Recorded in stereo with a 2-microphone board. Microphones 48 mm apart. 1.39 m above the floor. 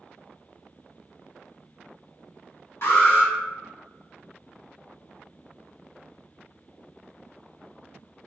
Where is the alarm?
65° left (ahead or behind), 1.3 m.